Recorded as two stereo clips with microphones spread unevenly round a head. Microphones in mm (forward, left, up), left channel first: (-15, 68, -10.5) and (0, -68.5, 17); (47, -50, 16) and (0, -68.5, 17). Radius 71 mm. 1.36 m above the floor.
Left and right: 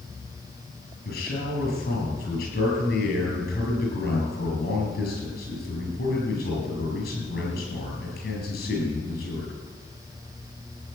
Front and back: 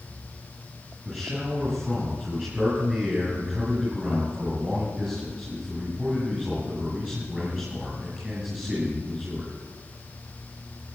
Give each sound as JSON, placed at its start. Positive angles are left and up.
{"t": 1.1, "sound": "a man speaking", "azimuth_deg": 120, "distance_m": 8.5}